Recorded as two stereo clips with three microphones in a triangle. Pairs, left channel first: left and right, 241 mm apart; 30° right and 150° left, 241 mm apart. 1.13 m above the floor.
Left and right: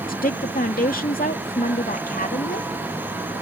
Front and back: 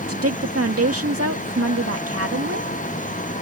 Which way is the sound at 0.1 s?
140° left.